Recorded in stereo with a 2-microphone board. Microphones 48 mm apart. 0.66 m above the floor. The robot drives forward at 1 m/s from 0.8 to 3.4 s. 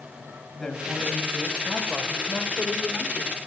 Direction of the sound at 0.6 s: 15° left (ahead or behind).